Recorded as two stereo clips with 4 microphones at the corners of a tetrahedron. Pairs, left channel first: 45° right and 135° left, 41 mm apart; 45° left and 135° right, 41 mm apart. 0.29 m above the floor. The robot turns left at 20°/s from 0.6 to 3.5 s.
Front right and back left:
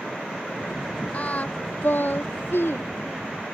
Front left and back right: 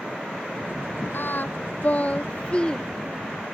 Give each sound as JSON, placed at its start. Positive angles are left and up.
{"t": 1.1, "sound": "singing", "azimuth_deg": 10}